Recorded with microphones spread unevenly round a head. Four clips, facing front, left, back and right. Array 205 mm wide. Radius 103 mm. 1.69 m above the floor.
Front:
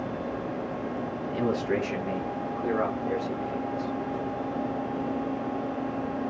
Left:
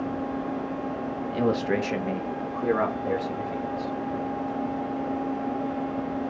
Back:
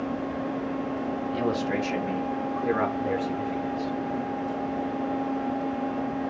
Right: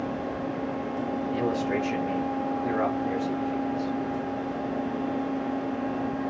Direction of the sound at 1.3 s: 80° left.